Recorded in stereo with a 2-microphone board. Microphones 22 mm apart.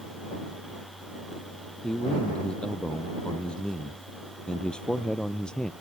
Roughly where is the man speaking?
Left.